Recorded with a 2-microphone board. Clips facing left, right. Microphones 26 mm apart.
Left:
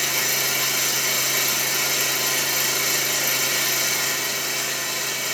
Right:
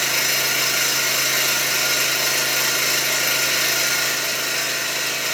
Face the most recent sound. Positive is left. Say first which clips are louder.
# right 3 dB
turn(degrees=-80)